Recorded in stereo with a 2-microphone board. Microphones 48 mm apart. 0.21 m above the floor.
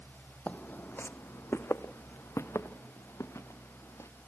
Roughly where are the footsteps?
Left.